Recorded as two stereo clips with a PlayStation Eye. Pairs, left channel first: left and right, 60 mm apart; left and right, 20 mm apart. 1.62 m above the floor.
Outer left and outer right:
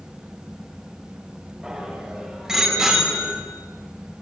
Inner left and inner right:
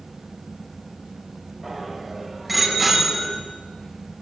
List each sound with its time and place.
1.6 s a bicycle bell: 10° right (ahead or behind), 9.5 m; by 3.4 s 5° right (ahead or behind), 8.5 m